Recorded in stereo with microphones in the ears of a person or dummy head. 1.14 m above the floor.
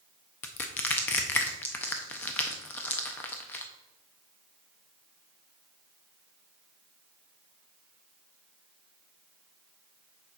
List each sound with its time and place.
0.4 s crushing: 20° left (ahead or behind), 0.5 m